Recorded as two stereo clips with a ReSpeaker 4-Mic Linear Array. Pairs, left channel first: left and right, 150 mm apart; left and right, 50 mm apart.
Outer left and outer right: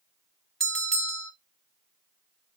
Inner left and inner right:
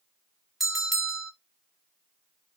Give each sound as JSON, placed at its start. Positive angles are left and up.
{"t": 0.6, "sound": "a bell", "side_deg": 5, "distance_m": 2.0}